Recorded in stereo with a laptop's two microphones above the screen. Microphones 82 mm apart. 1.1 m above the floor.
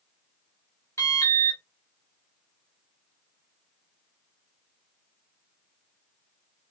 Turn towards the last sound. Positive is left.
turn(degrees=35)  # may be behind; listen again after turning